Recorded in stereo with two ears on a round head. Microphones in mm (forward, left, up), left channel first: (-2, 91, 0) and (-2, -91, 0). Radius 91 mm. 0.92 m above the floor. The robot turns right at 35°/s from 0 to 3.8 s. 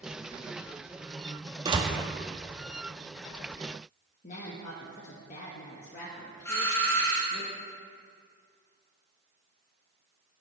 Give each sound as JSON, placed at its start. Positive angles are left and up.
{"t": 1.6, "sound": "a door slam", "side_deg": -20, "distance_m": 0.7}
{"t": 4.2, "sound": "a woman speaking", "side_deg": 40, "distance_m": 1.0}
{"t": 6.5, "sound": "a doorbell", "side_deg": 10, "distance_m": 1.6}